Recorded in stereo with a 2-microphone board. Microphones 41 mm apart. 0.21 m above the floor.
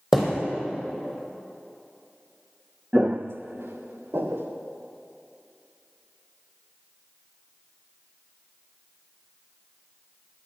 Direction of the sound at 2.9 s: 20° right (ahead or behind).